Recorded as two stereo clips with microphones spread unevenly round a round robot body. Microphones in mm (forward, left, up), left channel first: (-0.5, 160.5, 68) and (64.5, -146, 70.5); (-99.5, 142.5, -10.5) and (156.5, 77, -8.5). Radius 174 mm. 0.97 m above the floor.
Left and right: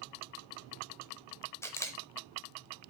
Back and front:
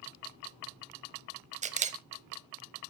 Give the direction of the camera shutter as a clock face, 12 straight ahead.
11 o'clock.